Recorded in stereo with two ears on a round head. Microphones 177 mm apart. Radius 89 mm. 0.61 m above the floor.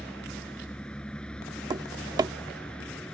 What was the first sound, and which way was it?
A vehicle, 5° left (ahead or behind).